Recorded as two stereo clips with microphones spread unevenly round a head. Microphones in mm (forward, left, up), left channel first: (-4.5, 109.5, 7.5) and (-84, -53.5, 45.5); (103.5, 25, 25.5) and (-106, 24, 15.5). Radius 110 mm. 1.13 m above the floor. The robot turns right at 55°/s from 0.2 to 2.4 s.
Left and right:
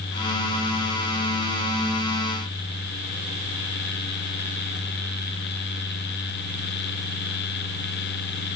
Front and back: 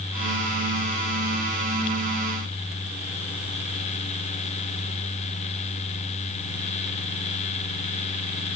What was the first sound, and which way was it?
Only background noise.